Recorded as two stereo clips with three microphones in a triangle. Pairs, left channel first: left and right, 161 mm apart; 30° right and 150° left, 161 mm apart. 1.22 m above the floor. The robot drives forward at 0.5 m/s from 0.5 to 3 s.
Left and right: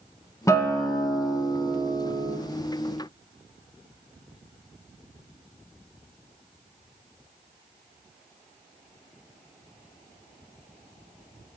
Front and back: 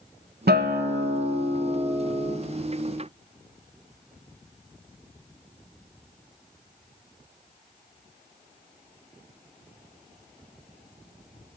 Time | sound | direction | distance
0.5 | a guitar | 160° left | 0.6 m